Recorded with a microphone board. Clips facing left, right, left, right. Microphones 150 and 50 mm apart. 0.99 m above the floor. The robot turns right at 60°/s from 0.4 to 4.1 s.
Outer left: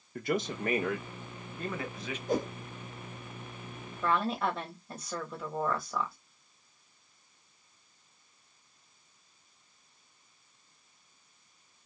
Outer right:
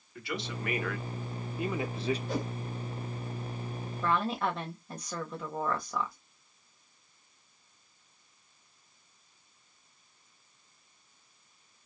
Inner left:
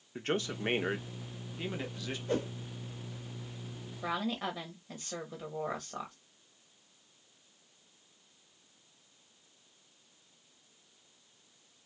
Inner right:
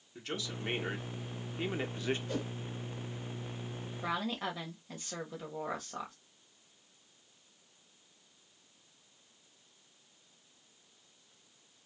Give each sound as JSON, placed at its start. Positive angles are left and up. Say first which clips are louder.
{"t": 0.1, "sound": "a man speaking", "louder": "outer left 6 dB, inner left 6 dB", "azimuth_deg": 120, "distance_m": 0.9}
{"t": 2.3, "sound": "a whoosh", "louder": "outer left 3 dB, inner left 5 dB", "side_deg": 40, "distance_m": 1.2}
{"t": 4.0, "sound": "a woman speaking", "louder": "even, inner left 1 dB", "side_deg": 0, "distance_m": 1.1}